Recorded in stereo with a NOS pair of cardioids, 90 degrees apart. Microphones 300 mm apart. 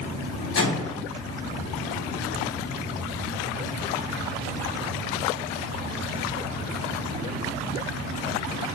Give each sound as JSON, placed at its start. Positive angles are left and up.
{"t": 0.6, "sound": "a microwave", "azimuth_deg": 50, "distance_m": 1.9}